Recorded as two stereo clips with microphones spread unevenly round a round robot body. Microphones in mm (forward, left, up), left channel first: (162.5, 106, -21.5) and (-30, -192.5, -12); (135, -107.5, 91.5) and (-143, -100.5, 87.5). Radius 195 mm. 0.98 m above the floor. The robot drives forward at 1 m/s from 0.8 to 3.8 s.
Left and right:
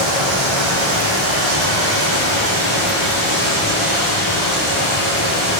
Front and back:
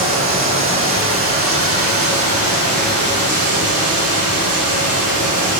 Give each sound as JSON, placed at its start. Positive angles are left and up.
{"t": 0.0, "sound": "running water", "azimuth_deg": -140, "distance_m": 10.0}